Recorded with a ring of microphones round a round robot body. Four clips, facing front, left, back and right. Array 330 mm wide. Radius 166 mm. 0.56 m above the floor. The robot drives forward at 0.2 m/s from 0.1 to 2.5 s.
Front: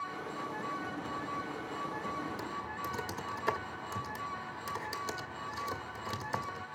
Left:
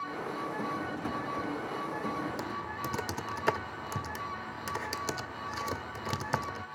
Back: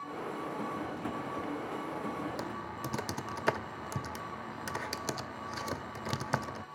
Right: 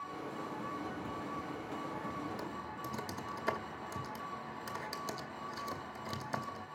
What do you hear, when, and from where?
2.4 s typing on a keyboard: 130° left, 0.6 m